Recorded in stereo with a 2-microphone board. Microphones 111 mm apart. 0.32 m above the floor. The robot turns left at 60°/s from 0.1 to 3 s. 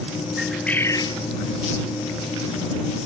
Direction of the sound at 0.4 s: 175° right.